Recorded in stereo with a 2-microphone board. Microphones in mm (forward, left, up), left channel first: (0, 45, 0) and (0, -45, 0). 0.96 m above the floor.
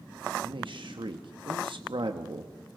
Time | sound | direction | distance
0.4 | a man speaking | 75° right (ahead or behind) | 1.3 m